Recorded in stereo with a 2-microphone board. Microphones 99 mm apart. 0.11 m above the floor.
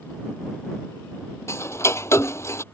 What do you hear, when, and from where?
1.5 s ticking: 30° left (ahead or behind)